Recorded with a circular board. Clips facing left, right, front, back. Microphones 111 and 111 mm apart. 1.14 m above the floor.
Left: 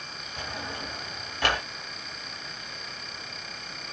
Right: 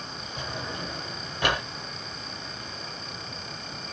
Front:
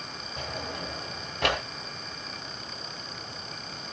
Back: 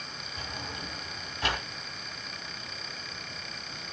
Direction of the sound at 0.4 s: 15° right.